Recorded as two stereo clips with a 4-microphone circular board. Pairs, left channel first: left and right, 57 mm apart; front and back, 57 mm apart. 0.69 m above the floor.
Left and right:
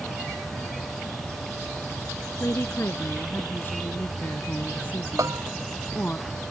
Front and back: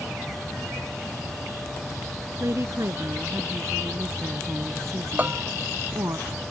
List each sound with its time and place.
2.4 s a woman speaking: 140° left; by 6.2 s 155° left
5.2 s a bell: 120° right